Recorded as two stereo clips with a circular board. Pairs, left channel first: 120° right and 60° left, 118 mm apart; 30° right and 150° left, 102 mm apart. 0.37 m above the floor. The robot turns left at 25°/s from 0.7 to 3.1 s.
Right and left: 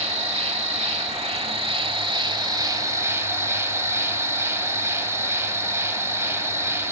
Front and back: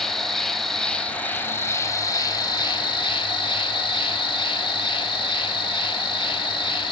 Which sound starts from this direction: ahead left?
An insect, at 0.0 s.